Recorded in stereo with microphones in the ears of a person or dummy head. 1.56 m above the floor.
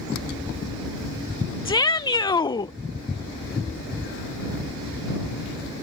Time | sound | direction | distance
1.6 | a shout | 20° left (ahead or behind) | ?